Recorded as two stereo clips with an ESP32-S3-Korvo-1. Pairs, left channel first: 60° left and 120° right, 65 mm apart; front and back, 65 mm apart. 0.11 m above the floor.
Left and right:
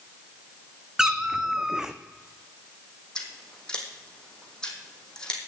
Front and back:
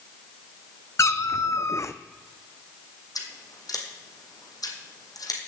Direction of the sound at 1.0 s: 40° right.